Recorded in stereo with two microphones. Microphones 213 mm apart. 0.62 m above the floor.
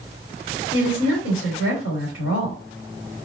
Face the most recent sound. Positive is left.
turn(degrees=70)  # may be behind; listen again after turning